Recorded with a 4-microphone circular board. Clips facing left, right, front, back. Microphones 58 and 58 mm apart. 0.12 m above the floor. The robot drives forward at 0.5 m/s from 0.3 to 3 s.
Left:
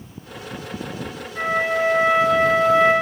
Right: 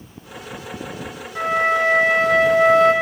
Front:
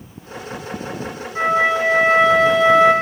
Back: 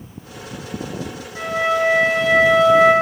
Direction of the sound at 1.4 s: 60° right.